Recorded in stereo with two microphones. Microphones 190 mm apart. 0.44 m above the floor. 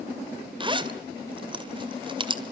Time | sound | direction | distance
0.6 | a zipper | 25° right (ahead or behind) | 2 m